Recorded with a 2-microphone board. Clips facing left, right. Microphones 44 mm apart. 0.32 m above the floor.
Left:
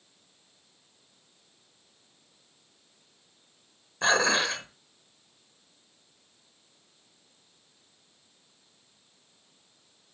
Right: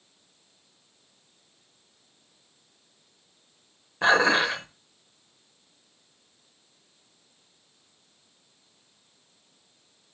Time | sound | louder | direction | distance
4.0 | dishes clattering | right 4 dB | 10° right (ahead or behind) | 0.8 m